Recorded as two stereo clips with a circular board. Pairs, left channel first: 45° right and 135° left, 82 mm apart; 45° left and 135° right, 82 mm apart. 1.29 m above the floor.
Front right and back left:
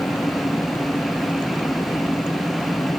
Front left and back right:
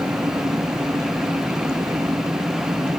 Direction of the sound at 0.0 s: 100° right.